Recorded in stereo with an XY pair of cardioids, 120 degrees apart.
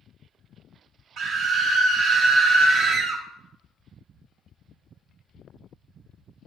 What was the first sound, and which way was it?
A scream, 65° right.